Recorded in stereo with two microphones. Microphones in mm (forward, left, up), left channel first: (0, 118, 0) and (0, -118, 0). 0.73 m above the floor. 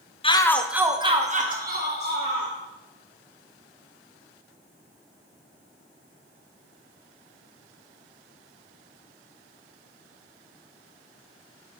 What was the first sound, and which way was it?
A shout, 25° left (ahead or behind).